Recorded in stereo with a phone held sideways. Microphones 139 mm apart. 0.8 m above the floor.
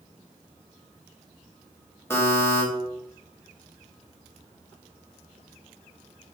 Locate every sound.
2.1 s a buzzer: 20° left (ahead or behind), 0.6 m